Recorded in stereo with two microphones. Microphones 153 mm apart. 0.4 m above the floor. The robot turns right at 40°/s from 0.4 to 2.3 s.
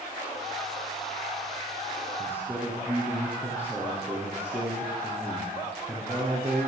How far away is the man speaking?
About 9 m.